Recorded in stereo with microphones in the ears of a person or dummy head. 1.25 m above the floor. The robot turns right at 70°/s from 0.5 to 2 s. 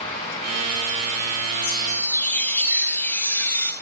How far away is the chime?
About 0.7 m.